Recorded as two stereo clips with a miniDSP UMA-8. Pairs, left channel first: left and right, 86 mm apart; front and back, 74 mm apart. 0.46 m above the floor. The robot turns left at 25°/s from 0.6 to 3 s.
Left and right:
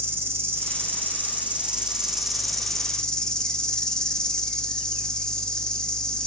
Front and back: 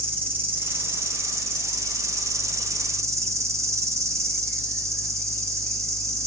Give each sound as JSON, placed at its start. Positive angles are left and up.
{"t": 0.0, "sound": "an insect", "azimuth_deg": -135, "distance_m": 1.0}